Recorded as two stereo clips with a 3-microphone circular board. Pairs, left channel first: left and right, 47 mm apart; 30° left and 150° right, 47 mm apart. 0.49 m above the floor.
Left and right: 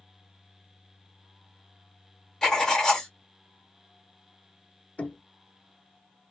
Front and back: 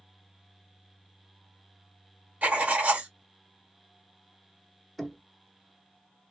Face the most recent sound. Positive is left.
turn(degrees=110)